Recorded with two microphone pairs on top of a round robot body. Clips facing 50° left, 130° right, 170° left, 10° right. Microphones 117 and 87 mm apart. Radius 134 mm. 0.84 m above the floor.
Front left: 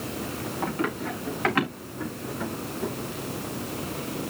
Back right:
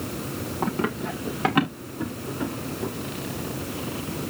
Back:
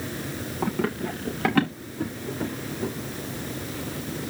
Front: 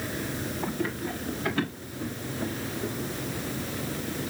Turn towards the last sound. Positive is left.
turn(degrees=145)